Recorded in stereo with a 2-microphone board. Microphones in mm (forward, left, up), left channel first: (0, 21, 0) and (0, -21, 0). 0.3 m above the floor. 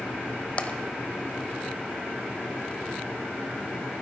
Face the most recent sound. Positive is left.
turn(degrees=30)  # may be behind; listen again after turning